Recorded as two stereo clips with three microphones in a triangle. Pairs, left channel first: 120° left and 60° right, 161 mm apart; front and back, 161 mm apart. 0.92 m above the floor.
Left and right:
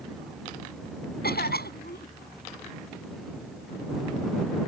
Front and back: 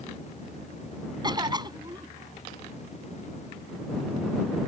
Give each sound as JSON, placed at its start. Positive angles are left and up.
{"t": 1.2, "sound": "a cough", "azimuth_deg": 115}